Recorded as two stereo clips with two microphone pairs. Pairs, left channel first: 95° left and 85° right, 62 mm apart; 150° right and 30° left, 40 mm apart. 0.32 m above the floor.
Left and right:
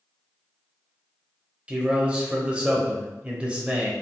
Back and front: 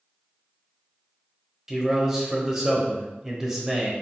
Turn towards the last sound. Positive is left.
turn(degrees=-35)